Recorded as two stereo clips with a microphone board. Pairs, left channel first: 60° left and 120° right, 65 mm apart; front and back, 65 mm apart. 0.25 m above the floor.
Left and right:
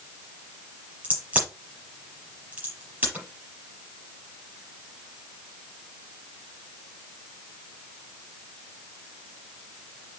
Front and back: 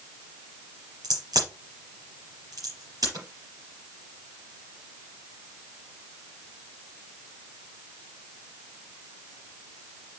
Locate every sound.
1.0 s a crack: 175° left, 6 m